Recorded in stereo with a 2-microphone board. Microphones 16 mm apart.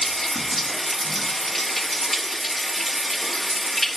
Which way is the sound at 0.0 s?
20° left (ahead or behind).